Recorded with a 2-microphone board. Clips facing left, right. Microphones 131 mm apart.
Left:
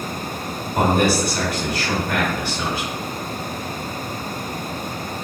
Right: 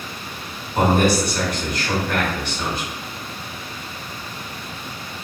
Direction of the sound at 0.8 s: 10° left (ahead or behind).